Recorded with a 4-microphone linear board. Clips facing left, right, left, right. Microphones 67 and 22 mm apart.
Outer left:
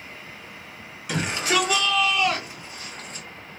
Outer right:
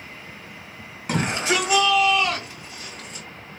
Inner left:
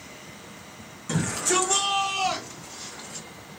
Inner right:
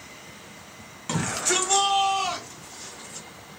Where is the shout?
35° right (ahead or behind), 1.7 m; by 3.3 s 40° left (ahead or behind), 1.6 m.